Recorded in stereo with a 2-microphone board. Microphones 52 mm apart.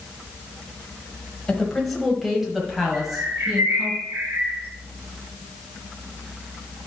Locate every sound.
1.5 s a woman speaking: 10° left (ahead or behind), 1.4 m; by 3.9 s 10° right (ahead or behind), 2.5 m
2.9 s a bird: 40° right (ahead or behind), 3 m